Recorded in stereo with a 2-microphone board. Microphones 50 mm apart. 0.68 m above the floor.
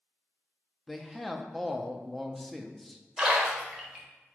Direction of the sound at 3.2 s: 15° right (ahead or behind).